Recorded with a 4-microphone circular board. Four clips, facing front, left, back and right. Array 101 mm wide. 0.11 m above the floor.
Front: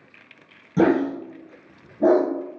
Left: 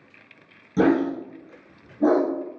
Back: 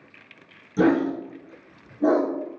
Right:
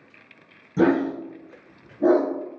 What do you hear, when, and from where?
0.8 s a dog barking: 10° left, 1.2 m